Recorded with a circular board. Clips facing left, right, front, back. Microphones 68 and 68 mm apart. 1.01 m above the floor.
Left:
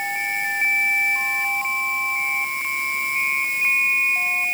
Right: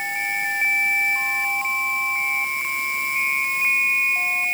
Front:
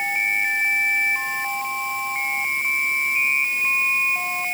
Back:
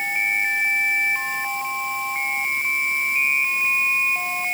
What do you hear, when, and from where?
Only background noise.